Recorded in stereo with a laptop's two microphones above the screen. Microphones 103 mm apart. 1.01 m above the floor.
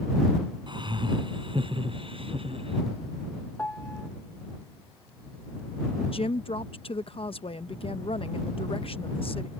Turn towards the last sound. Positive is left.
turn(degrees=60)  # may be behind; listen again after turning